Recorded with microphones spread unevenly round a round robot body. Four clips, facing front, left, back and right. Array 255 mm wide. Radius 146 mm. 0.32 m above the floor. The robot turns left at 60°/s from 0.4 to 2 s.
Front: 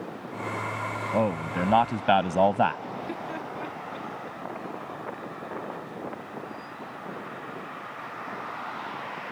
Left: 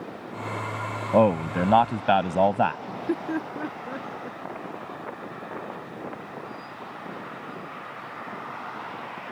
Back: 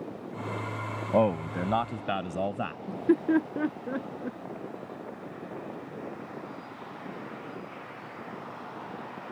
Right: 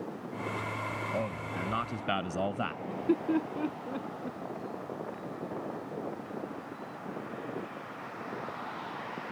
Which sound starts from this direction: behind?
Laughter, at 2.9 s.